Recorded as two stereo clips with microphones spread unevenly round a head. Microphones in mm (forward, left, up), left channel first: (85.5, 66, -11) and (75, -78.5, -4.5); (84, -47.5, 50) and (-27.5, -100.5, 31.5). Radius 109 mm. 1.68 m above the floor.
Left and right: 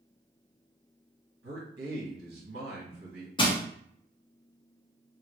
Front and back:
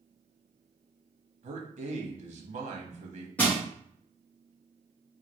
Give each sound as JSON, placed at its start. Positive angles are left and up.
{"t": 1.4, "sound": "a man speaking", "azimuth_deg": -135, "distance_m": 1.2}
{"t": 3.4, "sound": "crushing", "azimuth_deg": 80, "distance_m": 0.8}